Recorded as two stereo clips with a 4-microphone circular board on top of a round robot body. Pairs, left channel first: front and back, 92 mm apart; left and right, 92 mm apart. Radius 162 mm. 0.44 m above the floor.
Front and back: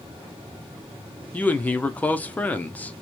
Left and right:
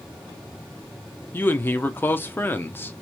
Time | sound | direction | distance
1.3 | a man speaking | 55° left | 0.7 m